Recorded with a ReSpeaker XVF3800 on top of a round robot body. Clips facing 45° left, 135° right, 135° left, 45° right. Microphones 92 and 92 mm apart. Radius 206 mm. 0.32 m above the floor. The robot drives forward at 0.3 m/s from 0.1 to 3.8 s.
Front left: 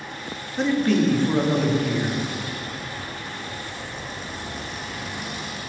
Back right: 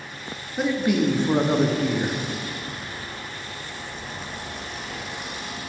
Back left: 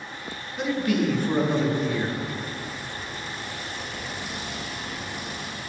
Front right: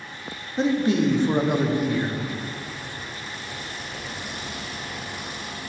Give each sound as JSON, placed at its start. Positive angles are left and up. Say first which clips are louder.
{"t": 0.6, "sound": "a man speaking", "louder": "front left 2 dB, front right 3 dB", "azimuth_deg": -55, "distance_m": 0.9}